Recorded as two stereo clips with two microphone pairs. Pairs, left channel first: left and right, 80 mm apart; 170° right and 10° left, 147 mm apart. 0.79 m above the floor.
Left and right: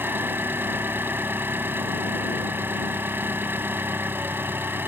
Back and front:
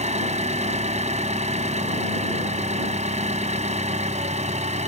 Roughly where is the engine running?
Ahead right.